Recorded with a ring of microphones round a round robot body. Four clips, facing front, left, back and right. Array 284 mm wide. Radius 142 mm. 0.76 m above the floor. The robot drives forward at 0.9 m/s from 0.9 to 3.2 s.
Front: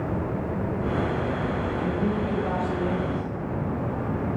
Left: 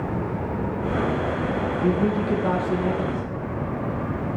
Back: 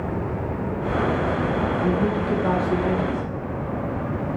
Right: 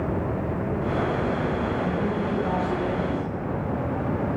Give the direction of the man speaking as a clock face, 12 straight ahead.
9 o'clock.